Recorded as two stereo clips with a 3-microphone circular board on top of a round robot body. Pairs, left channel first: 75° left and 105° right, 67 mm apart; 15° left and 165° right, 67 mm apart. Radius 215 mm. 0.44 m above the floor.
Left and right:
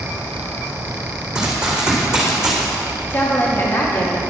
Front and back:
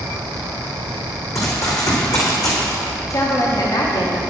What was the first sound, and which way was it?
Running footsteps, 30° right.